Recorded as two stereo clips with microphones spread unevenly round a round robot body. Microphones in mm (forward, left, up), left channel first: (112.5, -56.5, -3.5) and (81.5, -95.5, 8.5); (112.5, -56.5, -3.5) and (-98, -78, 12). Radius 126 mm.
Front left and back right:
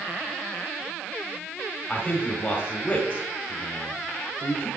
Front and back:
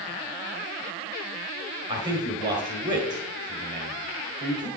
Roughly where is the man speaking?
Behind left.